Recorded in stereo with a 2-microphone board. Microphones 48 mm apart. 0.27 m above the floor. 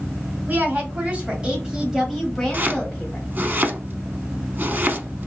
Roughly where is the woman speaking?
Right.